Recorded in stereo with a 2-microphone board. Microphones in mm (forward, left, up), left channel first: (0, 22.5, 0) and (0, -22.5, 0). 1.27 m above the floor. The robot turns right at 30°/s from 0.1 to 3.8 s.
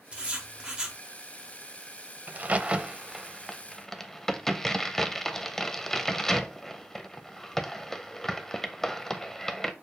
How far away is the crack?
About 0.5 m.